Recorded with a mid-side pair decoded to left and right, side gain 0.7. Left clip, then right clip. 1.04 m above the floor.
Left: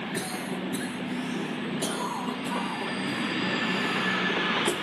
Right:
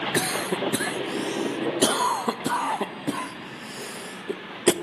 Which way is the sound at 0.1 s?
45° right.